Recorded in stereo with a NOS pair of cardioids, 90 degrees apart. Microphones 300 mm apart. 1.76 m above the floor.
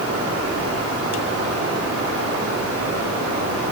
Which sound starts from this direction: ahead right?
Running water, at 0.0 s.